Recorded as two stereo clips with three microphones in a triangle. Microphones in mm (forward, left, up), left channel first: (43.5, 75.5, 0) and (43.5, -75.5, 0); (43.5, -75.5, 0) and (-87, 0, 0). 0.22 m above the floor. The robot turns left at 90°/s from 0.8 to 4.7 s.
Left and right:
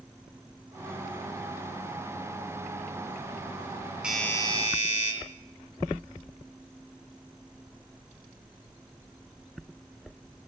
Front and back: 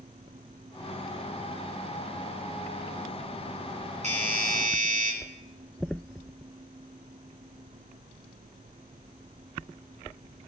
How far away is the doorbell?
About 6.5 m.